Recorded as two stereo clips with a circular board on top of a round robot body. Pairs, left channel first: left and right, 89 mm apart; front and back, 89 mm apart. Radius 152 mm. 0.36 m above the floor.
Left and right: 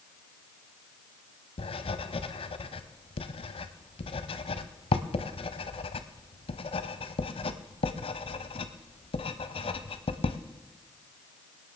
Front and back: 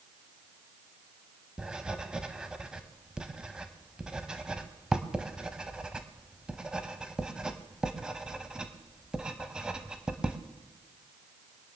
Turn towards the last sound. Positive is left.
turn(degrees=100)